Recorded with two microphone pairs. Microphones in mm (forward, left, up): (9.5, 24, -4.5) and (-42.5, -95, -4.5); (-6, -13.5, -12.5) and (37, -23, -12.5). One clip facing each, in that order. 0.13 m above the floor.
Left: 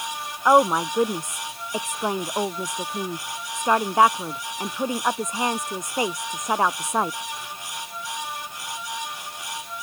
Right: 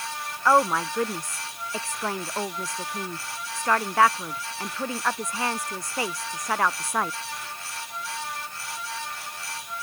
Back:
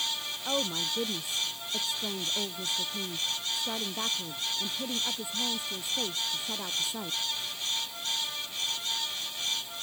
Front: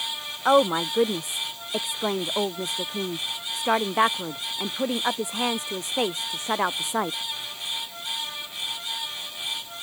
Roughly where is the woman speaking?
Ahead.